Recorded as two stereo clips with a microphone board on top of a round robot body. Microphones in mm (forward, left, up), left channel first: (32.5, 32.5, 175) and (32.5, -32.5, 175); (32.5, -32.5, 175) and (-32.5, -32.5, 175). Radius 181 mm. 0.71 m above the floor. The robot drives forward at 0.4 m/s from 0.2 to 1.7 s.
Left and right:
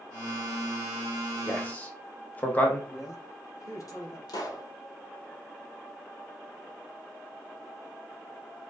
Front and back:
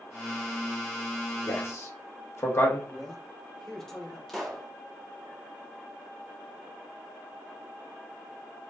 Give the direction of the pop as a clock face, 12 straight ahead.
9 o'clock.